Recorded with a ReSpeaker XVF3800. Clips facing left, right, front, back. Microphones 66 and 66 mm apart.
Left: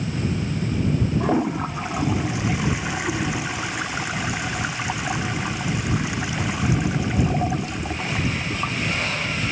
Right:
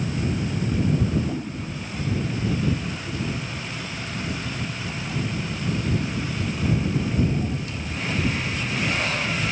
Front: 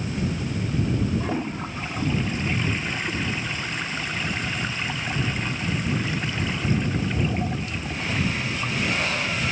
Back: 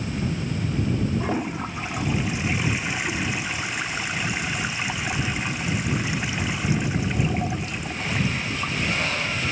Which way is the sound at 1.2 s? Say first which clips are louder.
Left 8 dB, back 1 dB; 100° left.